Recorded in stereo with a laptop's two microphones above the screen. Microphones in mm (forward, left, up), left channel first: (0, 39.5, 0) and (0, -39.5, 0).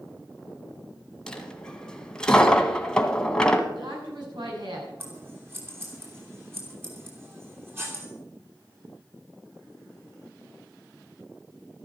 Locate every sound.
1.3 s a dropped coin: 10° left (ahead or behind), 1.6 m
3.7 s a woman speaking: 70° right (ahead or behind), 8 m
5.0 s scissors: 30° right (ahead or behind), 3 m